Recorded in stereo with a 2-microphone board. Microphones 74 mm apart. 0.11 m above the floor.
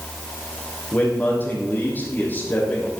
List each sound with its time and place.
0.9 s a man speaking: 25° left (ahead or behind), 4.5 m